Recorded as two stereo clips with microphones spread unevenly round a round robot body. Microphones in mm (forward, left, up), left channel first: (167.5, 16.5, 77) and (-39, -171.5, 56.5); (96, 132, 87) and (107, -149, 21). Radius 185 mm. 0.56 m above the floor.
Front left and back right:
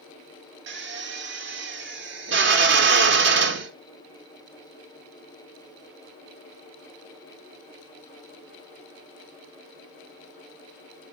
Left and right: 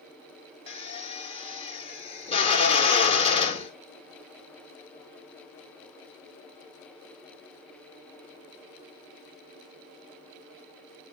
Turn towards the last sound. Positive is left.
turn(degrees=170)